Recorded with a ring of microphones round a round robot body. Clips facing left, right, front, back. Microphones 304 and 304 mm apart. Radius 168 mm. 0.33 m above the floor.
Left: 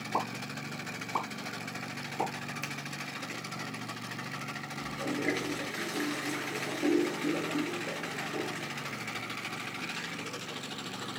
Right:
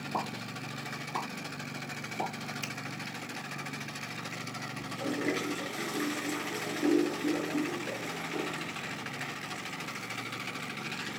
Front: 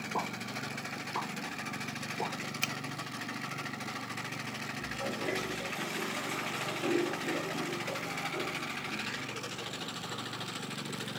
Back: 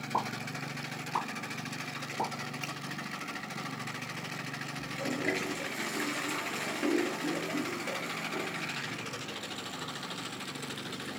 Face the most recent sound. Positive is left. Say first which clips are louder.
# even, back 4 dB
turn(degrees=-165)